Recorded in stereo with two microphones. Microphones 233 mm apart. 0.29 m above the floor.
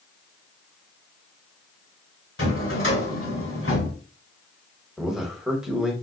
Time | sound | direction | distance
2.4 | a drawer | 65° left (ahead or behind) | 1.7 m
5.0 | a man speaking | centre (ahead or behind) | 1.1 m